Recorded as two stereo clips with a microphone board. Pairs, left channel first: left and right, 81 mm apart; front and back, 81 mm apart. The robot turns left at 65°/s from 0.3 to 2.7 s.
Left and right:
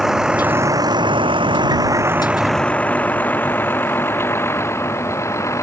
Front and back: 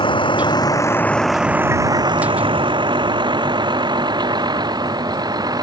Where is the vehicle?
5° right; by 5.6 s 145° left.